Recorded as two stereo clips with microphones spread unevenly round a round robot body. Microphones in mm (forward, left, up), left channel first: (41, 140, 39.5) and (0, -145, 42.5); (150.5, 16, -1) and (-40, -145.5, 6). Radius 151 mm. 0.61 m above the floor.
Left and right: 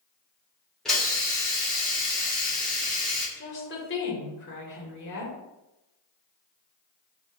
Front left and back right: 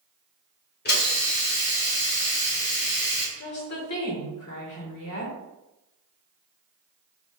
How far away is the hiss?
About 1.8 m.